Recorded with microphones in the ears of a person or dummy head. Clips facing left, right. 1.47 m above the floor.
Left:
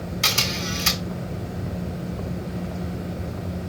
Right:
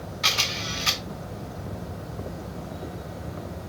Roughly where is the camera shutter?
Left.